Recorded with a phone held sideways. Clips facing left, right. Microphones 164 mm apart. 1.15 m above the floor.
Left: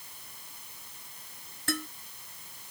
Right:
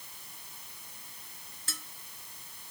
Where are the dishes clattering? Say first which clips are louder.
Left 17 dB; 70° left (ahead or behind).